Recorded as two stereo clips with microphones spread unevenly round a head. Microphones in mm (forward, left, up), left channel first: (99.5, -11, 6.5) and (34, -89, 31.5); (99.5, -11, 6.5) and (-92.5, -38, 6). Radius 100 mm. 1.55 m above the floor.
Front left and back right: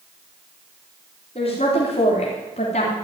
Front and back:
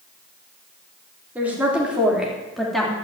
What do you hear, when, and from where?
1.4 s a woman speaking: 105° left, 3.5 m; by 3.0 s 95° left, 3 m